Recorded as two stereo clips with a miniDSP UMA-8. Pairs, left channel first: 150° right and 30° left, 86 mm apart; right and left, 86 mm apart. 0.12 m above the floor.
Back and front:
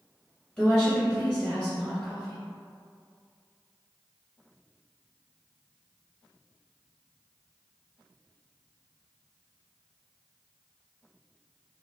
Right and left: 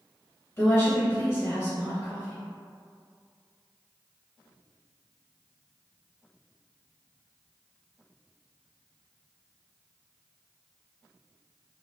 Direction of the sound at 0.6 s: 90° right.